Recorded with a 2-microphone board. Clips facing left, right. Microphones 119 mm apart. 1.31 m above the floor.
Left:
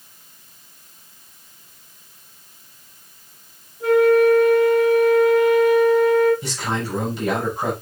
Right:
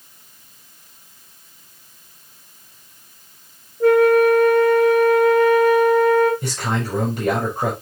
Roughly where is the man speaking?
Right.